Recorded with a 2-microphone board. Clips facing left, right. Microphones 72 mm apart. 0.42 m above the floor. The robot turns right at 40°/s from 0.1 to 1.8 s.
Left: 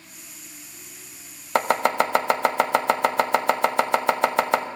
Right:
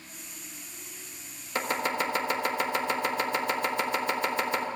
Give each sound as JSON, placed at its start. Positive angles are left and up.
{"t": 1.6, "sound": "chopping", "side_deg": 75, "distance_m": 0.6}